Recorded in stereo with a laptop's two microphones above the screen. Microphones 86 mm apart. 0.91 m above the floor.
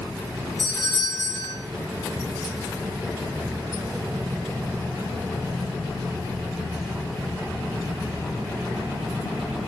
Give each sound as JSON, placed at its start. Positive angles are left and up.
{"t": 0.6, "sound": "a doorbell", "side_deg": 80, "distance_m": 4.5}